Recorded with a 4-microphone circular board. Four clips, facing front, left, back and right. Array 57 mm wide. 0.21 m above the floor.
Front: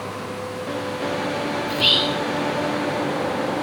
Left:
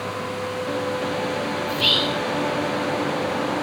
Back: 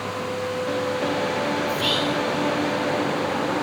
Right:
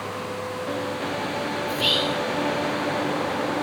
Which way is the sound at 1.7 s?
20° left.